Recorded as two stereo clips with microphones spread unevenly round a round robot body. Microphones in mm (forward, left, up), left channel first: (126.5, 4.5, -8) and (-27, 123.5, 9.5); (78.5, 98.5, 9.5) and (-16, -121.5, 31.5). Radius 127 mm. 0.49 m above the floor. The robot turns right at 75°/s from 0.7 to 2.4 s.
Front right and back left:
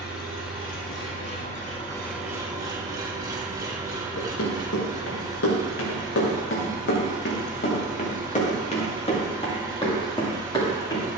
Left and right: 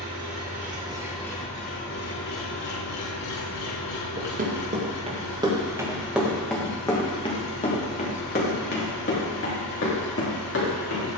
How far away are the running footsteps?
About 5 m.